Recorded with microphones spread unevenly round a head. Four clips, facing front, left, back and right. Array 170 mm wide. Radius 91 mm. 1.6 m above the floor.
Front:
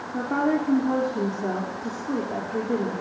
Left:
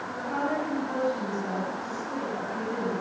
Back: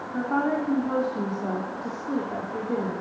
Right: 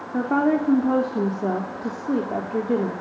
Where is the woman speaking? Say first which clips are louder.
Right 9 dB, front 1 dB; 75° right, 4.5 m.